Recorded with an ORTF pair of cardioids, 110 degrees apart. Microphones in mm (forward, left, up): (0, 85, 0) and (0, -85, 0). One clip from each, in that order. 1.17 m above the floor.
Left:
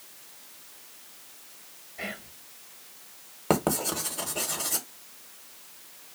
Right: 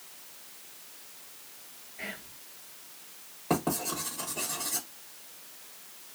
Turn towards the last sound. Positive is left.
turn(degrees=60)